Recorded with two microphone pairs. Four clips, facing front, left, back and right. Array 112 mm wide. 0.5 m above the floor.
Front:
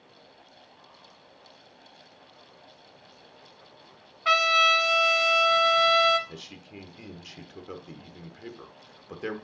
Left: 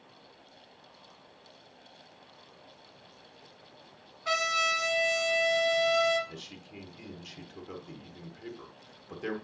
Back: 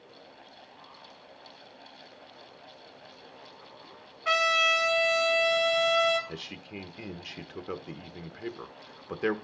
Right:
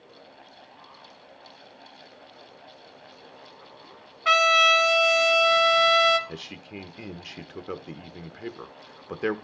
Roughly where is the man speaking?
Behind right.